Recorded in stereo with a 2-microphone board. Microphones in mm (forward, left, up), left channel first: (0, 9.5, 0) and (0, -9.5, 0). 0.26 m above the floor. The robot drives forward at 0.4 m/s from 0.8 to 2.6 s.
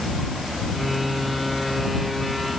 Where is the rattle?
No rattle in this recording.